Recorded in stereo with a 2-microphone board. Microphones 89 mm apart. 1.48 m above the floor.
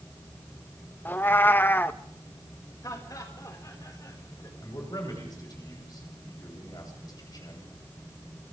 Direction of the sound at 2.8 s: 40° left (ahead or behind).